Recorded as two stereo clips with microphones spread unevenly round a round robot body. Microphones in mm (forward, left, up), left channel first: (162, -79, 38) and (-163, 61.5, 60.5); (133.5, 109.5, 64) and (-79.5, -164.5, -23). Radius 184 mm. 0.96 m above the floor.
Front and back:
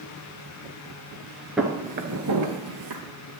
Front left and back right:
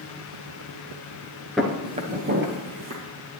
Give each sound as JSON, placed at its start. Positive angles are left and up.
{"t": 1.6, "sound": "footsteps", "azimuth_deg": 85, "distance_m": 0.9}